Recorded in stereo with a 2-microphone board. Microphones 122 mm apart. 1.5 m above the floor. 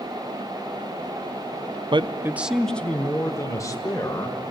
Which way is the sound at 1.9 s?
45° right (ahead or behind).